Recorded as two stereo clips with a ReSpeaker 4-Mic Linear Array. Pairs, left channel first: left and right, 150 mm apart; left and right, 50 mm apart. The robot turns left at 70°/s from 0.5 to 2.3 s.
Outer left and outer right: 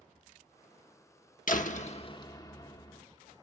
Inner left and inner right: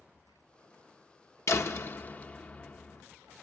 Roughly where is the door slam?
Left.